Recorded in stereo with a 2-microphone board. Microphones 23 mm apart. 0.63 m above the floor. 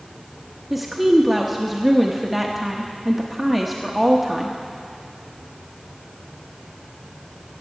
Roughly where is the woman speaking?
Centre.